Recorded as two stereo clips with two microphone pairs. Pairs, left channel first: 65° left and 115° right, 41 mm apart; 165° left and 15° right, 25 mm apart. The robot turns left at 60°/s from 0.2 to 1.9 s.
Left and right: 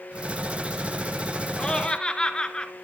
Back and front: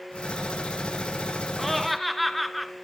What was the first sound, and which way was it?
Laughter, 100° left.